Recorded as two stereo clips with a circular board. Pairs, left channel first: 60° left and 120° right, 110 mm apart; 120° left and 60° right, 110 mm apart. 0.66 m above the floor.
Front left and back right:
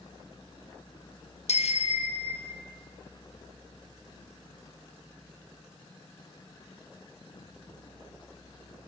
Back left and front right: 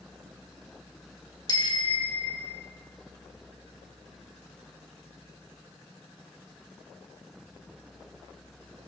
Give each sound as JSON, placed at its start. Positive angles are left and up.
{"t": 1.5, "sound": "a bicycle bell", "azimuth_deg": 70, "distance_m": 3.5}